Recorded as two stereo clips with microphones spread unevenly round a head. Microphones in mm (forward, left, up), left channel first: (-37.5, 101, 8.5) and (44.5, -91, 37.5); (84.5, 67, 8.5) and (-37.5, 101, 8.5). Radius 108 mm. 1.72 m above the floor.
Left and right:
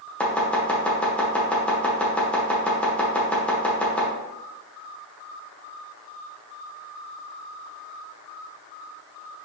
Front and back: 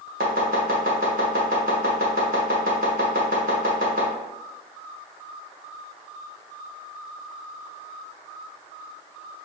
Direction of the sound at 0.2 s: 160° right.